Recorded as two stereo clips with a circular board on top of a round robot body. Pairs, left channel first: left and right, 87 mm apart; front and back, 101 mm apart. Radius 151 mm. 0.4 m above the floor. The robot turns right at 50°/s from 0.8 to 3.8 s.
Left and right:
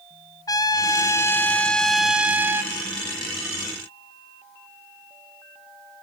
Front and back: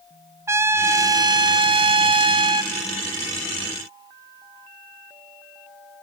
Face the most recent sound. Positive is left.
turn(degrees=-90)